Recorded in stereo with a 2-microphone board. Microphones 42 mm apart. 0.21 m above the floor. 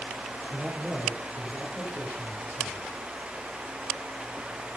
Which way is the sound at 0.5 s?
60° left (ahead or behind).